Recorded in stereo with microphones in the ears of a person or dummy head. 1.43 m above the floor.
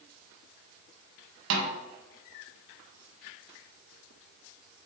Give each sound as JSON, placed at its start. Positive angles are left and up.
{"t": 1.5, "sound": "a snare drum", "side_deg": -75, "distance_m": 1.6}